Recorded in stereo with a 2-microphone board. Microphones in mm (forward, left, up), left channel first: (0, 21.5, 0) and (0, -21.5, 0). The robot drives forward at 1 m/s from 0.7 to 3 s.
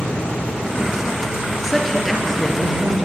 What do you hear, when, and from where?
1.6 s a woman speaking: 5° left (ahead or behind), 3.5 m